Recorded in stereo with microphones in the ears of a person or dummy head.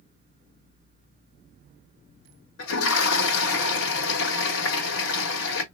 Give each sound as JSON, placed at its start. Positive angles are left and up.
{"t": 2.6, "sound": "a toilet flushing", "side_deg": 80, "distance_m": 1.6}